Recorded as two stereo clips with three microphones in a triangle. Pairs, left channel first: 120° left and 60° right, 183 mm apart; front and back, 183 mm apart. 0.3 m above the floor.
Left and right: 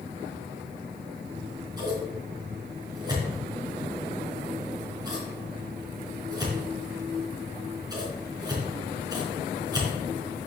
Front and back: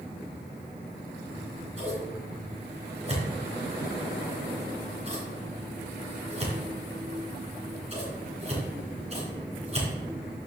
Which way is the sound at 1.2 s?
125° right.